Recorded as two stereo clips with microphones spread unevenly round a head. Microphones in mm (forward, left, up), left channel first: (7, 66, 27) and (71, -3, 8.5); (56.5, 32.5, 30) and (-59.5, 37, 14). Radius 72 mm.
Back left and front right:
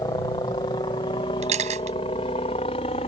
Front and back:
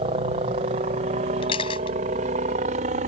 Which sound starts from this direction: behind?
A helicopter, at 0.0 s.